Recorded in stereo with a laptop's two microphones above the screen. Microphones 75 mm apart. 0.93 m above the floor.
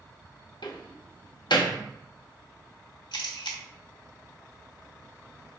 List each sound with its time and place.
0.6 s a door slam: 85° left, 0.6 m
3.1 s a camera shutter: 85° left, 0.9 m